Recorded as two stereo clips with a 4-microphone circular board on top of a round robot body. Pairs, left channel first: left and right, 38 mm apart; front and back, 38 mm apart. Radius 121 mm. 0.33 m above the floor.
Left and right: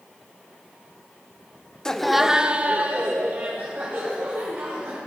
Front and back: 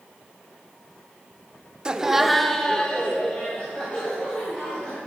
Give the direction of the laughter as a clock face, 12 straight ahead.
7 o'clock.